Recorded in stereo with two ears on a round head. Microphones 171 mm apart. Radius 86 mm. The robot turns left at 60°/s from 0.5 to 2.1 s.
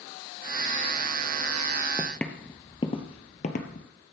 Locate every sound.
2.0 s footsteps: 5° left (ahead or behind), 1.0 m; by 3.9 s 45° left (ahead or behind), 1.3 m